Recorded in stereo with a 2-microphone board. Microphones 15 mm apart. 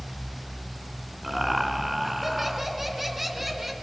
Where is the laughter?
15° right (ahead or behind), 2 m.